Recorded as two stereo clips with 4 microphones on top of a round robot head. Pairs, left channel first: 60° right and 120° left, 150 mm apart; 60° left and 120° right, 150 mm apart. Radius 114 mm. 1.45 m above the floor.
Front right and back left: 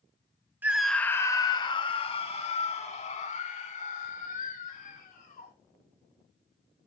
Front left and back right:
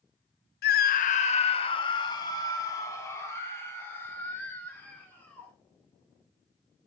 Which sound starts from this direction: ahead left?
A scream, at 0.6 s.